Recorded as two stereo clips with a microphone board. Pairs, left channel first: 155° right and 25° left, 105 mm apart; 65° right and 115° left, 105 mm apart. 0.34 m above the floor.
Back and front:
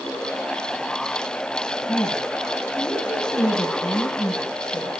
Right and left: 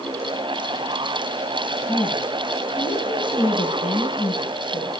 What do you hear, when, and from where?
1.9 s a woman speaking: 80° right, 8 m